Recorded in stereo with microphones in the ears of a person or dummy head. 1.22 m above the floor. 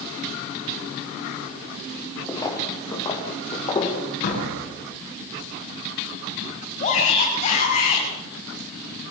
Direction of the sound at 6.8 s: 40° left (ahead or behind).